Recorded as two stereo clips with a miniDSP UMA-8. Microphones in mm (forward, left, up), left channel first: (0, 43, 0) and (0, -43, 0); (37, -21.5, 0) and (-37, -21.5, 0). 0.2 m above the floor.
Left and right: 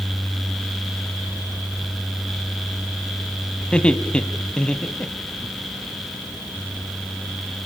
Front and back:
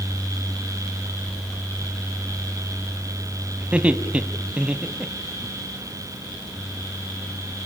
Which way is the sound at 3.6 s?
145° left.